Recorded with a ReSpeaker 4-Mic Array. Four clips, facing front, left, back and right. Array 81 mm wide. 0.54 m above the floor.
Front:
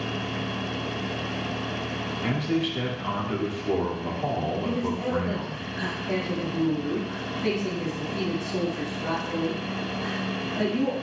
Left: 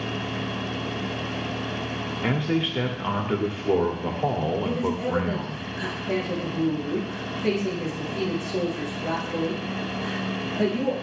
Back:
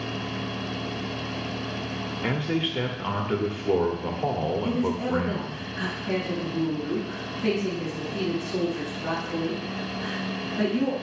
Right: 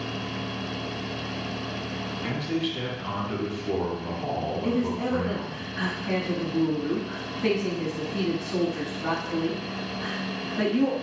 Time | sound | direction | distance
2.2 | a man speaking | 120° left | 1.5 m
4.6 | a woman speaking | 90° right | 4 m